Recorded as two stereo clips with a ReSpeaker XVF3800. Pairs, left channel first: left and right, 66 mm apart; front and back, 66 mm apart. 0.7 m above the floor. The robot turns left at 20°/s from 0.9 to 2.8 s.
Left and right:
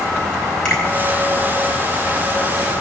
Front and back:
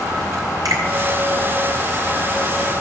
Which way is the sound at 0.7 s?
165° left.